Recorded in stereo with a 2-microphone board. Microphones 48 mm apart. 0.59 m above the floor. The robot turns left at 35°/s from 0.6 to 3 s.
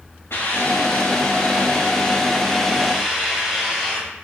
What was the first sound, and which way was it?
A hiss, 75° left.